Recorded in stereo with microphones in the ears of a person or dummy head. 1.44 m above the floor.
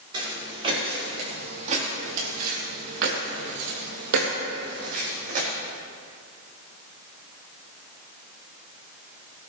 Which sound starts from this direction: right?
Footsteps, at 0.1 s.